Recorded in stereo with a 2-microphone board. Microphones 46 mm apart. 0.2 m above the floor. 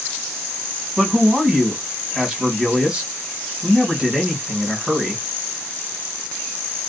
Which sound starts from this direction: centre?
A man speaking, at 1.0 s.